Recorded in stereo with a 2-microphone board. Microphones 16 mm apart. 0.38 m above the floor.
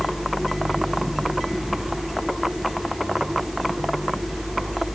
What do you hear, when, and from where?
Only background noise.